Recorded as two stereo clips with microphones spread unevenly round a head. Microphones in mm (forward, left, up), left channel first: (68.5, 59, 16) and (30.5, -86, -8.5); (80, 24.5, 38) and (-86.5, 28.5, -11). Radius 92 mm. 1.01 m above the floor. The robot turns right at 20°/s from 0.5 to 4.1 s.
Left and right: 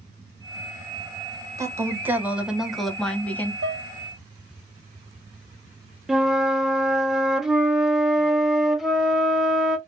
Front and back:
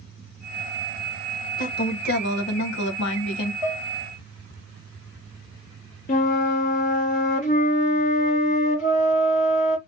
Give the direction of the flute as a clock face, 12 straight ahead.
12 o'clock.